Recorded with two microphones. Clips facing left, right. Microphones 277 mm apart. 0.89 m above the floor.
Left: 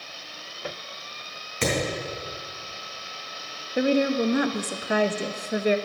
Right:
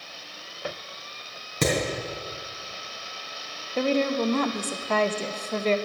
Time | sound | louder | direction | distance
1.6 | hammering | right 2 dB | 45° right (ahead or behind) | 3.5 m
3.8 | a woman speaking | left 2 dB | 10° left (ahead or behind) | 0.5 m